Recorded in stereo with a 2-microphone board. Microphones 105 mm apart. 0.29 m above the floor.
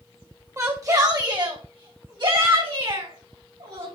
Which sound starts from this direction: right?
A shout, at 0.6 s.